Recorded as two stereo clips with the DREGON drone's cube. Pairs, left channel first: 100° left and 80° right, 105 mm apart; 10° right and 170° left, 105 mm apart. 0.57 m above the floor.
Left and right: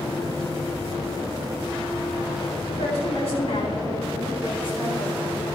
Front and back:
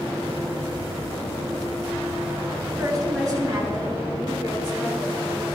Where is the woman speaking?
115° left, 4.5 m; by 5.5 s 130° left, 5 m.